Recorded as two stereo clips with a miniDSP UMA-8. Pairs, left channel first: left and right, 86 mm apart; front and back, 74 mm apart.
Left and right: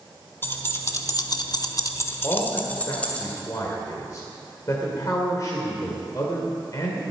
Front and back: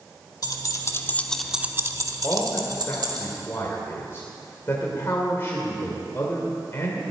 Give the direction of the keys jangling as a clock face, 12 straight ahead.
11 o'clock.